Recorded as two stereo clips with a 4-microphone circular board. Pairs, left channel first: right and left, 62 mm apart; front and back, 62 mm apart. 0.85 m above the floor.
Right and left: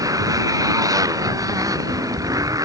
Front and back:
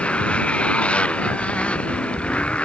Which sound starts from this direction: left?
A motorcycle, at 0.0 s.